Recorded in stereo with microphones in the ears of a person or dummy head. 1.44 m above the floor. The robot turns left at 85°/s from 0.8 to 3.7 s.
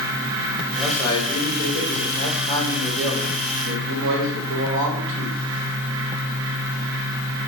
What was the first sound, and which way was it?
A man speaking, 175° left.